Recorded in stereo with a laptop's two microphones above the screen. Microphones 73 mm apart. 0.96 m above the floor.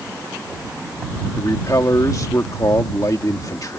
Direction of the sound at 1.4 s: 50° left (ahead or behind).